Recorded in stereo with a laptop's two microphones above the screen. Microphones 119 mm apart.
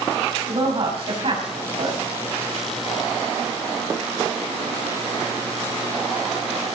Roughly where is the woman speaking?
Right.